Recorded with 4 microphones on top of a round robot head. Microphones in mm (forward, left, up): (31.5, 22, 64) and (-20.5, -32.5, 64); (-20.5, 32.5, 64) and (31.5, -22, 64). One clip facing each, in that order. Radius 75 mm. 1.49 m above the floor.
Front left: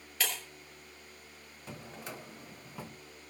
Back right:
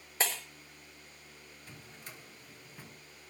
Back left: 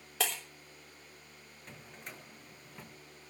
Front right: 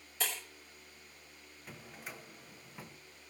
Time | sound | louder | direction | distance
0.2 | breaking glass | back right 2 dB, back left 4 dB | 165° left | 3 m
1.7 | a drawer | front left 9 dB, front right 1 dB | 40° left | 0.8 m